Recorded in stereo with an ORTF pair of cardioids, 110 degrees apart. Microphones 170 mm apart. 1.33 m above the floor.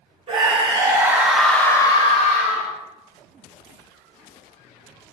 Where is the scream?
35° right, 1.3 m; by 2.7 s 60° left, 1.1 m.